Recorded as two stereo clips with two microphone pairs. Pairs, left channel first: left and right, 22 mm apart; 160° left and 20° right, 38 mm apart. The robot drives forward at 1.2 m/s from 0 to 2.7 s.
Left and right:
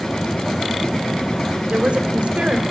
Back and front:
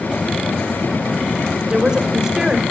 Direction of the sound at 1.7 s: 80° right.